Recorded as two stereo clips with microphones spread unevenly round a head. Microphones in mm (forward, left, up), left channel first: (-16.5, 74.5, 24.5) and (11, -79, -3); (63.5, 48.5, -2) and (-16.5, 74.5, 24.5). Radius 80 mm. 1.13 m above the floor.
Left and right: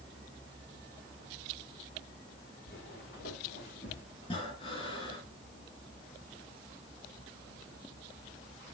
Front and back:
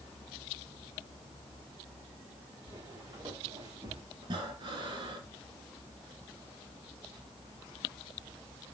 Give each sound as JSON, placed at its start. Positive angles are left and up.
{"t": 2.7, "sound": "footsteps", "azimuth_deg": 120, "distance_m": 5.5}
{"t": 4.2, "sound": "breathing", "azimuth_deg": 150, "distance_m": 3.0}